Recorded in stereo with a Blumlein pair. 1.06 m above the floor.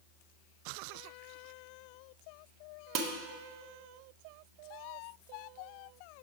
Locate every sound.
3.0 s dishes clattering: 40° right, 0.7 m